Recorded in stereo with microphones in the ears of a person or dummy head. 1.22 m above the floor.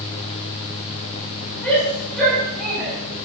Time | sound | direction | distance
1.6 | a shout | 5° left (ahead or behind) | 9 m